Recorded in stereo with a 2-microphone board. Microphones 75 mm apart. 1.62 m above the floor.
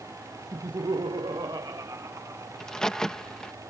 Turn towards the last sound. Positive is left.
turn(degrees=10)  # may be behind; listen again after turning